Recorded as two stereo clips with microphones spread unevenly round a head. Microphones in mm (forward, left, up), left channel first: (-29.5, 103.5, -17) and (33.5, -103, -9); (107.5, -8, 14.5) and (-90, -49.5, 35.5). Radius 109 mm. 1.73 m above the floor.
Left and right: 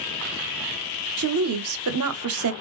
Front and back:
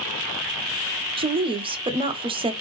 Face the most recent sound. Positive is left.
turn(degrees=-100)